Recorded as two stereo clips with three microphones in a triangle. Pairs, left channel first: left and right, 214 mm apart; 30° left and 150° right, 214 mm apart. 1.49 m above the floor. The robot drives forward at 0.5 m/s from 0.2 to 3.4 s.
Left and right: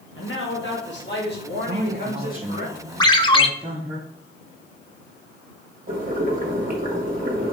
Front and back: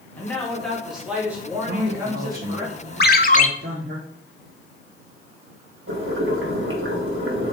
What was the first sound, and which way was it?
A man speaking, 110° left.